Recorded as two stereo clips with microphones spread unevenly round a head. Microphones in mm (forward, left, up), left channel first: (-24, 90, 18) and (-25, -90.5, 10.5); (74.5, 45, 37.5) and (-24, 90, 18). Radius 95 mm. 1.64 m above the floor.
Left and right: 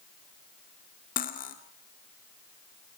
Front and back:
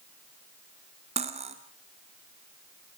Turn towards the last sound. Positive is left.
turn(degrees=130)